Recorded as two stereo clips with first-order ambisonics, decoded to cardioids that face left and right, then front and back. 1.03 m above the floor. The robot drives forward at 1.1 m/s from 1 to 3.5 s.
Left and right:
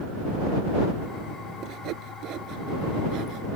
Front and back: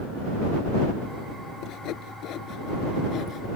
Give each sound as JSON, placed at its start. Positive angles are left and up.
{"t": 1.6, "sound": "sawing", "azimuth_deg": -45}